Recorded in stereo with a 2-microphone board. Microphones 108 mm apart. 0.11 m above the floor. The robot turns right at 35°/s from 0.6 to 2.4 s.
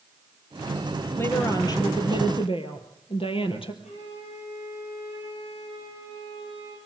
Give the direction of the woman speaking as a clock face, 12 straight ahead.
11 o'clock.